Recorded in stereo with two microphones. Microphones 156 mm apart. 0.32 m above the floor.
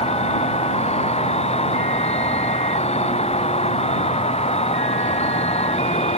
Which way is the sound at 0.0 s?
40° left (ahead or behind).